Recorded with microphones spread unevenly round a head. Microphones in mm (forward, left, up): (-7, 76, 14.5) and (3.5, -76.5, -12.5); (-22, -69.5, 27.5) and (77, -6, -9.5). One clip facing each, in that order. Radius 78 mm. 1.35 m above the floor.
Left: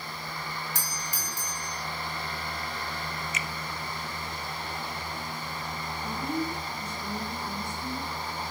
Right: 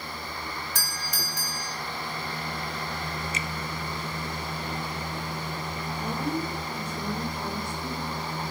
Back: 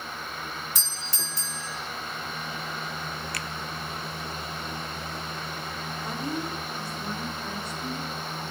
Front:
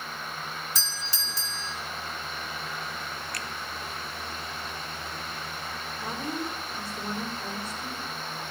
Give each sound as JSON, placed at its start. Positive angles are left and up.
{"t": 0.8, "sound": "a doorbell", "azimuth_deg": -105, "distance_m": 3.5}
{"t": 3.3, "sound": "a finger snap", "azimuth_deg": -150, "distance_m": 0.7}
{"t": 6.0, "sound": "a woman speaking", "azimuth_deg": -45, "distance_m": 4.0}